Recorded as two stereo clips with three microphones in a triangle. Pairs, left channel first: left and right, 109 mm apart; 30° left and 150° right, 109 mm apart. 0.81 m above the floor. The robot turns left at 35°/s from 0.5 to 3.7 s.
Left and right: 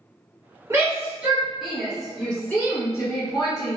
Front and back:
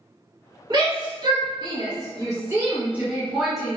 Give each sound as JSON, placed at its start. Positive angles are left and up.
{"t": 0.7, "sound": "a shout", "azimuth_deg": -140, "distance_m": 1.3}